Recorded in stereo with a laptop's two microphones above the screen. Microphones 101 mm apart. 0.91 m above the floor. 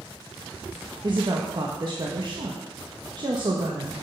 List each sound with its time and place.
1.0 s a woman speaking: 45° right (ahead or behind), 1.3 m